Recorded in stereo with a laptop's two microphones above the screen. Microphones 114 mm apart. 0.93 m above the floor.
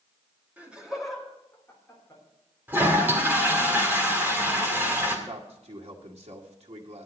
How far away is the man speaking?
About 1.9 m.